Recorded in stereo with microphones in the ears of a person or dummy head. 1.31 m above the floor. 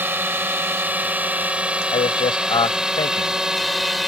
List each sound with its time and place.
0.0 s a drone: 5° right (ahead or behind); by 4.1 s centre (ahead or behind)
1.9 s a man speaking: 25° left (ahead or behind)